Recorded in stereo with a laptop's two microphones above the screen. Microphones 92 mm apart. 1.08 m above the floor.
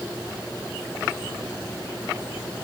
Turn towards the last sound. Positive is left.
No sound to turn to.